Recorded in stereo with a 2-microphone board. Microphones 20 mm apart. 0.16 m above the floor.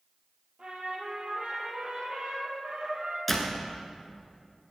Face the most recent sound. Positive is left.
turn(degrees=0)  # may be behind; listen again after turning